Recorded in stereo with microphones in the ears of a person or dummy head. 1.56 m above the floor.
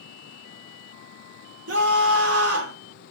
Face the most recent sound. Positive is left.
turn(degrees=-85)